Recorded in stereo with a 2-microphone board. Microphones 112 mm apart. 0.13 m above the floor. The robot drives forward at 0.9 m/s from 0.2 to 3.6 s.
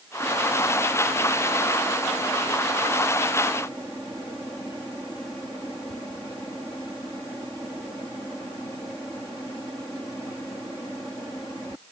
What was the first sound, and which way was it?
Only background noise.